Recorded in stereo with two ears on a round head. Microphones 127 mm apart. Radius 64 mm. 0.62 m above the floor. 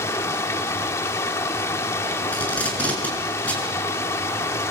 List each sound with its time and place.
0.0 s running water: 20° left (ahead or behind), 1.1 m
2.3 s tape being pulled: 10° left (ahead or behind), 7 m